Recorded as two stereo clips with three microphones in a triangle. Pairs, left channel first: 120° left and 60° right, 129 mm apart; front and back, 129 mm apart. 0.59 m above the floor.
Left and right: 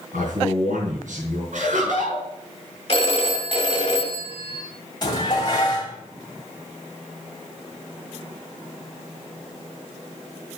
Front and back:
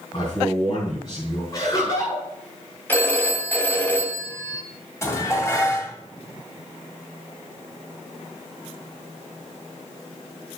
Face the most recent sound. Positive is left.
turn(degrees=65)